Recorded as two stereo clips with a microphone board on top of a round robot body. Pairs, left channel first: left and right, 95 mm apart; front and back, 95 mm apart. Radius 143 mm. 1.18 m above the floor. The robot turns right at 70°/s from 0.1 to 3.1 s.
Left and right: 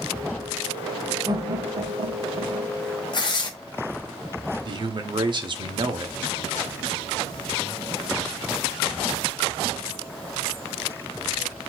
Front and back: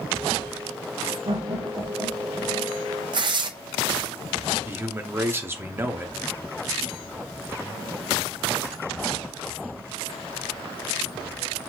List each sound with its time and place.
1.2 s laughter: 150° right, 1.6 m; by 2.8 s 45° right, 1.6 m
3.1 s tearing paper: 135° left, 0.6 m
4.7 s a man speaking: 115° right, 0.9 m